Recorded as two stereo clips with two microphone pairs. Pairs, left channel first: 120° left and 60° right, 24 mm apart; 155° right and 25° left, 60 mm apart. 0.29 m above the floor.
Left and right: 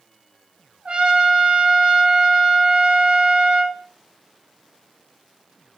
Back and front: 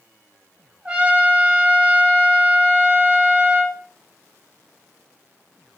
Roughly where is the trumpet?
Ahead right.